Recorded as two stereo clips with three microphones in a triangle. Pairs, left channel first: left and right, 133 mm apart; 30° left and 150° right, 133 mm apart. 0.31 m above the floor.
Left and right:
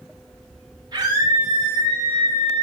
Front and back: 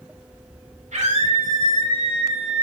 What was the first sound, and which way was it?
A scream, 145° right.